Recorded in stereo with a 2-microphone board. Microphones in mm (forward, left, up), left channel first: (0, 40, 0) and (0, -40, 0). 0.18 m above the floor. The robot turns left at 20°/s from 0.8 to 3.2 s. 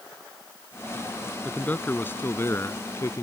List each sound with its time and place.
1.4 s a man speaking: 155° left; by 3.2 s 120° left